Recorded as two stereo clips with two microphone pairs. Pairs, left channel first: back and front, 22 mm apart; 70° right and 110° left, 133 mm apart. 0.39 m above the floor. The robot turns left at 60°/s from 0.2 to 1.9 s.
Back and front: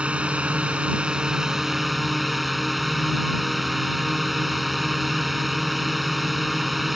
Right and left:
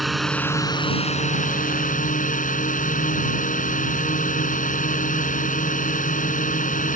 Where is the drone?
20° left; by 7.0 s 80° right.